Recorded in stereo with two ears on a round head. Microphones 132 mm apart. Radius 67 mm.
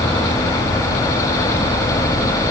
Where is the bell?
No bell in this recording.